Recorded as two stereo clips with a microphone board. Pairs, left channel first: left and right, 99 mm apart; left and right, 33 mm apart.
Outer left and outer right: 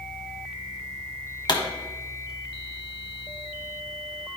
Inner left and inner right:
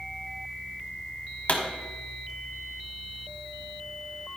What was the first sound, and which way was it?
A pop, 50° left (ahead or behind).